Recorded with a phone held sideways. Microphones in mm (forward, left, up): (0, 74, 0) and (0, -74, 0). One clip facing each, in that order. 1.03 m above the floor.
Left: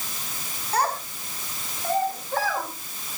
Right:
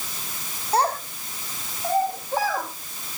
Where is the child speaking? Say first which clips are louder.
Right 3 dB; 30° right (ahead or behind), 2 m; by 2.7 s 10° right (ahead or behind), 3.5 m.